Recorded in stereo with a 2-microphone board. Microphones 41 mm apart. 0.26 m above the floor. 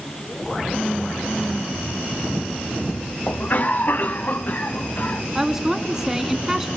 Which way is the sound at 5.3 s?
10° right (ahead or behind).